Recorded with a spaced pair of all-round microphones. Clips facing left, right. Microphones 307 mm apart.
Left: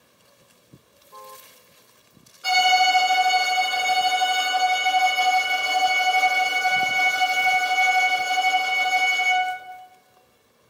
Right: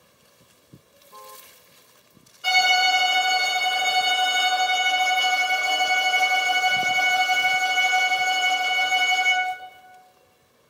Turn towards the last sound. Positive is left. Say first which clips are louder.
# left 3 dB
turn(degrees=10)  # may be behind; listen again after turning